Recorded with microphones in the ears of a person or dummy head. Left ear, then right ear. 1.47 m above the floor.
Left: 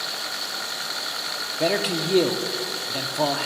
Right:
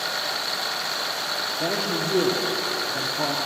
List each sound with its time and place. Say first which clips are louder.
1.6 s a man speaking: left 6 dB; 60° left (ahead or behind), 0.7 m